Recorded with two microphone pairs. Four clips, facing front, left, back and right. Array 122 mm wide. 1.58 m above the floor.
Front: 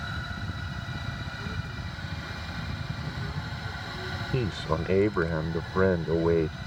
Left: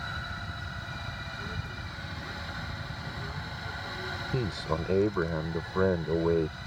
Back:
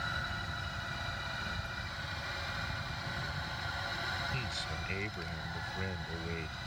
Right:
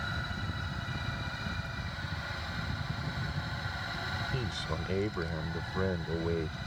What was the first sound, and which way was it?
A child speaking, 45° left.